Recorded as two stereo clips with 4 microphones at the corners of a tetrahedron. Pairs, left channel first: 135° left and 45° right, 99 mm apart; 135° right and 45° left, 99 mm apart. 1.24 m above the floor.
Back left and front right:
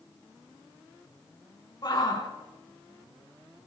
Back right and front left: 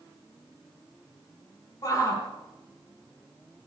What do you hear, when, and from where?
1.8 s a shout: straight behind, 4 m